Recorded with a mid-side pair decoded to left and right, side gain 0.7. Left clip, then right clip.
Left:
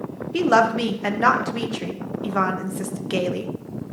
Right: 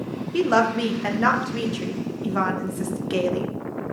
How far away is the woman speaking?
About 1.1 m.